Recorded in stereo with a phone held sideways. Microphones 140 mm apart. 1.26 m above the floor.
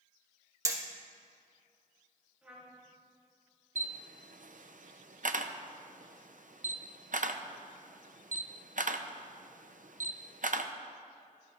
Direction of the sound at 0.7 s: 25° right (ahead or behind).